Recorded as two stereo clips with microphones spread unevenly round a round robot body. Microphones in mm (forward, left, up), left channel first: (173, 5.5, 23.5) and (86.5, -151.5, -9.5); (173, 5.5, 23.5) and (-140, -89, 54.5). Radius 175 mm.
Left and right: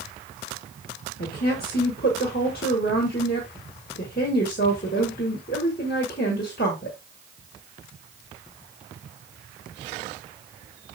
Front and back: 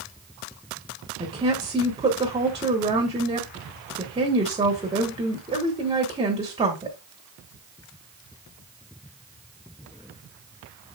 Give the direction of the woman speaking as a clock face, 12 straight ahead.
8 o'clock.